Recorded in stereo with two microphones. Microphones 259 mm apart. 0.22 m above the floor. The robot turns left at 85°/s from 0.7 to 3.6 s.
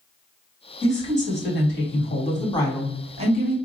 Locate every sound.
0.8 s a woman speaking: 170° left, 1.4 m; by 3.6 s 65° right, 1.4 m